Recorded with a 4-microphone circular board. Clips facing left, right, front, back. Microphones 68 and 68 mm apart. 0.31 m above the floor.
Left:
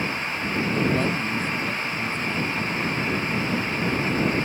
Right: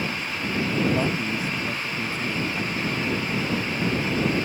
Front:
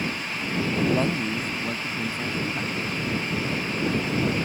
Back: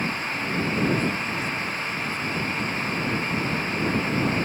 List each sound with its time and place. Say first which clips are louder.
0.9 s a man speaking: even, front 1 dB; 15° right; by 2.9 s 5° right